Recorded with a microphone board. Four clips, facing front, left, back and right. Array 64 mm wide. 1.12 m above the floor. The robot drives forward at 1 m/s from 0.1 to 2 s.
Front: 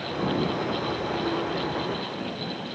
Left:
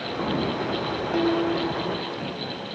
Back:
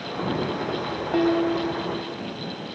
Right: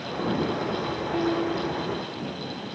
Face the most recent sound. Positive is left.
turn(degrees=170)